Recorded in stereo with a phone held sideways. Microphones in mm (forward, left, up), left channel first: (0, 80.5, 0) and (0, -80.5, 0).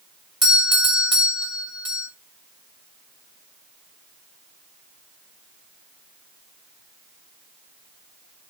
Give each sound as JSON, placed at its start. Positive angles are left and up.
{"t": 0.4, "sound": "a doorbell", "side_deg": -25, "distance_m": 2.0}